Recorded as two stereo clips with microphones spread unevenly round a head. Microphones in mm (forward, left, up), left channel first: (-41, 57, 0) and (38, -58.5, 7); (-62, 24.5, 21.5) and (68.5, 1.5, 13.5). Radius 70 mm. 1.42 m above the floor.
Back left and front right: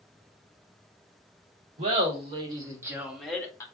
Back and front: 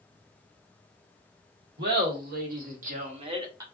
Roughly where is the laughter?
Ahead.